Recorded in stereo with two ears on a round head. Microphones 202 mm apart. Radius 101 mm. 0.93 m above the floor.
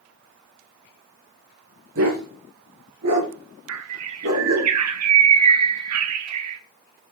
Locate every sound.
1.9 s a dog barking: 65° right (ahead or behind), 5 m
3.7 s a bird: 80° right, 1.2 m